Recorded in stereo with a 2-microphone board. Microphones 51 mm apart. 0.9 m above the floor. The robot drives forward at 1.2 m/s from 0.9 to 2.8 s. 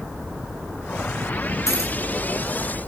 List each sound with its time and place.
1.7 s keys jangling: 80° left, 4.5 m